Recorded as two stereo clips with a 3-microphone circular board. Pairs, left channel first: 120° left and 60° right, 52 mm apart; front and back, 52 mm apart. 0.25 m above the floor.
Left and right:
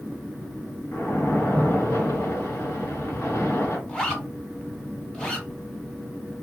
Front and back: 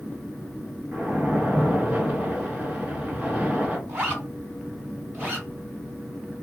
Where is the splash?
125° left, 1.0 m.